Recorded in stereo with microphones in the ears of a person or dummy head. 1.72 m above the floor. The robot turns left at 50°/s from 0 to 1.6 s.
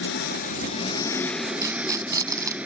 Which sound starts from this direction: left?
An engine running, at 0.0 s.